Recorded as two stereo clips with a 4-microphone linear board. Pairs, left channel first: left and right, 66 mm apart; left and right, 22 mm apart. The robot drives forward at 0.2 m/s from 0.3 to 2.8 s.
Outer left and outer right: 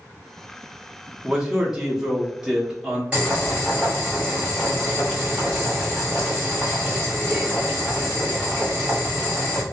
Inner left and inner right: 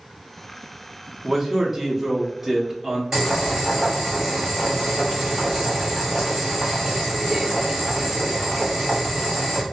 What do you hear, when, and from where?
1.2 s a man speaking: 10° right (ahead or behind), 0.8 m
3.1 s boiling: 15° right (ahead or behind), 1.6 m